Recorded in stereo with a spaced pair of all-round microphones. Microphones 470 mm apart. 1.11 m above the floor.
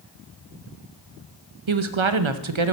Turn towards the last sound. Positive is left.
turn(degrees=-80)